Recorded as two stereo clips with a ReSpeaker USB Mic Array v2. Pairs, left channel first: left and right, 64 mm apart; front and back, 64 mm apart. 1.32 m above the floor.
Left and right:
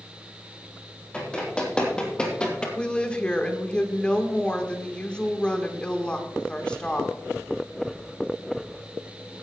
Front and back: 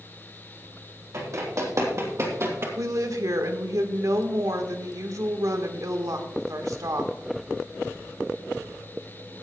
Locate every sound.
1.1 s running footsteps: 160° left, 3.5 m
2.8 s a woman speaking: 160° left, 1.5 m